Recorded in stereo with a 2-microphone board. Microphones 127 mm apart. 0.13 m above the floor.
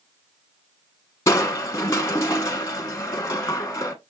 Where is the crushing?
25° left (ahead or behind), 1.2 m.